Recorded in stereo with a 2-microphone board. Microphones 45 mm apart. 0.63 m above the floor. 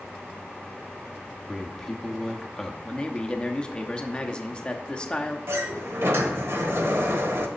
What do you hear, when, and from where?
1.5 s a man speaking: 10° left (ahead or behind), 0.9 m
2.9 s a man speaking: 20° left (ahead or behind), 0.8 m
5.5 s a sliding door: 70° right (ahead or behind), 1.1 m